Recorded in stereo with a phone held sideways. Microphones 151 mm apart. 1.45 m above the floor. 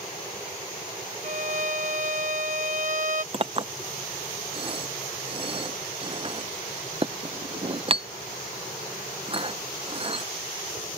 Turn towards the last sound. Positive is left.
turn(degrees=-40)  # may be behind; listen again after turning